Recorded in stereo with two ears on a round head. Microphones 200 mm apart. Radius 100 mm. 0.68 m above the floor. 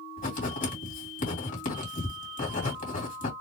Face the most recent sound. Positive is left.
turn(degrees=35)  # may be behind; listen again after turning